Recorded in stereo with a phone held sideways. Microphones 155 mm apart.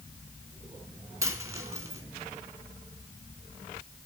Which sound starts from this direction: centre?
A dropped coin, at 1.2 s.